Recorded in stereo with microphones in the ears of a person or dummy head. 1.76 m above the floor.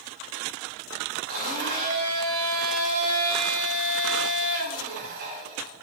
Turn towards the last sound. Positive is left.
turn(degrees=-50)  # may be behind; listen again after turning